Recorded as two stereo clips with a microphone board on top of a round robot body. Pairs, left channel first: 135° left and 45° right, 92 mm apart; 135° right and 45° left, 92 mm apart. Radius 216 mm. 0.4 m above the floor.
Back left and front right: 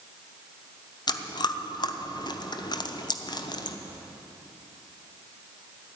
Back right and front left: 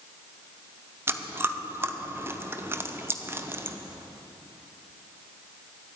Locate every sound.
1.1 s chewing: 105° left, 1.0 m